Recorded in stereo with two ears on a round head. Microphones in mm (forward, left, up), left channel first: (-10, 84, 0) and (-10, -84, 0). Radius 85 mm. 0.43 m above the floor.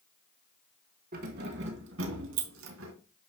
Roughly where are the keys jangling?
Right.